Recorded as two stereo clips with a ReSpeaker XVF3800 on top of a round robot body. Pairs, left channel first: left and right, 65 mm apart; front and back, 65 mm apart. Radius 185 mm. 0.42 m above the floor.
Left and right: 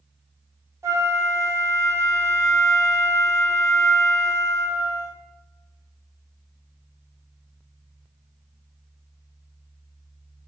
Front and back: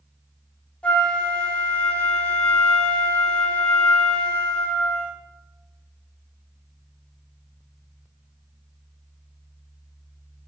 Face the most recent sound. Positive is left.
turn(degrees=-65)